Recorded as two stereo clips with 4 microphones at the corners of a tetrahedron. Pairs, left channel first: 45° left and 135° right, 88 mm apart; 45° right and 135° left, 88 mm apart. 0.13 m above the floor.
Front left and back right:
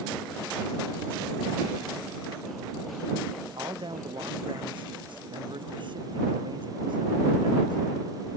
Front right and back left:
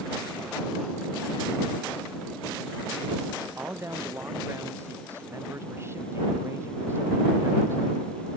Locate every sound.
3.6 s a man speaking: 165° right